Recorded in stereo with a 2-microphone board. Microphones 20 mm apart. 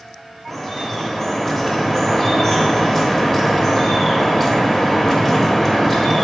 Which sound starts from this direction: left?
Dripping, at 0.5 s.